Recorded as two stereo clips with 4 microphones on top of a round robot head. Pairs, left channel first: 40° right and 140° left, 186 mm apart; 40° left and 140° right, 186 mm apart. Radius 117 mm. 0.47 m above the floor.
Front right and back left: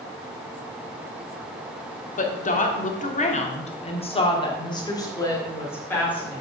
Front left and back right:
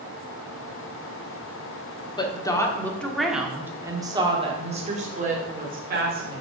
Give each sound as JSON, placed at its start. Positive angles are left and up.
{"t": 2.2, "sound": "a woman speaking", "azimuth_deg": -15, "distance_m": 1.5}